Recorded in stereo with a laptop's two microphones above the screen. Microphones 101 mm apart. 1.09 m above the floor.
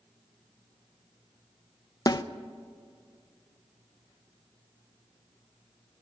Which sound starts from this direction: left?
A snare drum, at 2.1 s.